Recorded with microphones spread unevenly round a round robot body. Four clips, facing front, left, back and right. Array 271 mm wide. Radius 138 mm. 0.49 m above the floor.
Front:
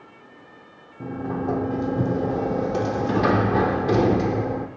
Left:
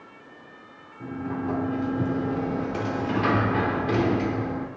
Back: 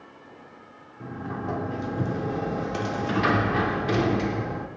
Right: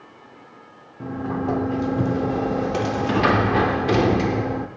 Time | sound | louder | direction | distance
1.0 | a sliding door | right 4 dB, front 6 dB | 35° right | 1.1 m